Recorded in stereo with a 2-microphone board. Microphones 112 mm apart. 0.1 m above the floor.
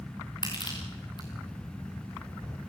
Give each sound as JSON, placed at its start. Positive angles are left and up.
{"t": 0.4, "sound": "crushing", "side_deg": 40, "distance_m": 5.0}